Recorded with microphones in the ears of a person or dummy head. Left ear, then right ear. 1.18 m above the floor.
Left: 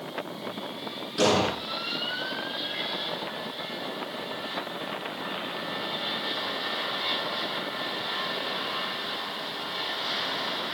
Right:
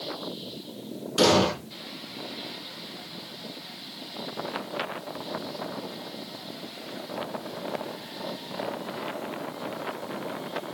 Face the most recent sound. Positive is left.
turn(degrees=-40)  # may be behind; listen again after turning